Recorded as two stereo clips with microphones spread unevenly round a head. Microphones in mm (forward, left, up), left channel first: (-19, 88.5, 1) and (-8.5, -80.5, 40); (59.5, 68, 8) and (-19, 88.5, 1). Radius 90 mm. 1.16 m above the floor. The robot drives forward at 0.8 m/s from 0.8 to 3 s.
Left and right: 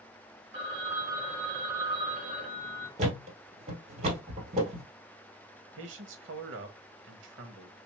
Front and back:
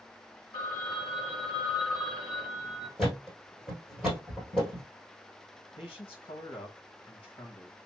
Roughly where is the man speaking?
Ahead right.